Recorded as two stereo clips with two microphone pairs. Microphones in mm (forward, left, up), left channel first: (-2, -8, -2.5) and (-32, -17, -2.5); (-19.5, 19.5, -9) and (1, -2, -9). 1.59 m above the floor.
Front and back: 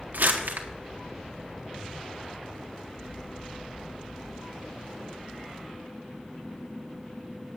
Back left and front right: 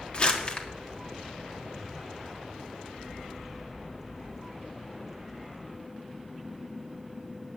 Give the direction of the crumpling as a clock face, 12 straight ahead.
6 o'clock.